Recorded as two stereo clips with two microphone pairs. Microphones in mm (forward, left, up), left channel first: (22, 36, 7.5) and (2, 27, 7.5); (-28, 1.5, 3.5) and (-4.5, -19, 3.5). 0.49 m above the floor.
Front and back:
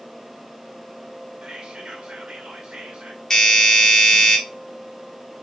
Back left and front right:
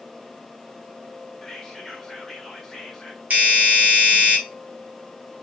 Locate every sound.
1.4 s whispering: 150° right, 1.8 m
3.3 s a doorbell: 35° right, 2.5 m